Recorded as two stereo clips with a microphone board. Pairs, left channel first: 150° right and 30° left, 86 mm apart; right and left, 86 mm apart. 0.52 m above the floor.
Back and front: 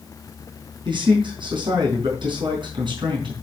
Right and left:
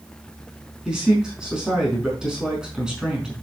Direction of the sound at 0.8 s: 10° left.